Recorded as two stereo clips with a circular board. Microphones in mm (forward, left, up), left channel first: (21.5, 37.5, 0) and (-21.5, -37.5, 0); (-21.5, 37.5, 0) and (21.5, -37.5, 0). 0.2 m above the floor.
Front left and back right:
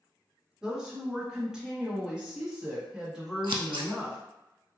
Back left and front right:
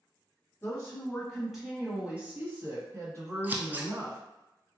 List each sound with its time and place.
0.6 s a woman speaking: 160° left, 1.2 m; by 4.2 s 35° right, 1.8 m
3.4 s scissors: 125° right, 0.6 m